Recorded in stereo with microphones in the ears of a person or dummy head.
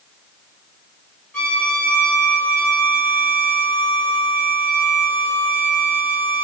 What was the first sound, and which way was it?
A violin, 10° left (ahead or behind).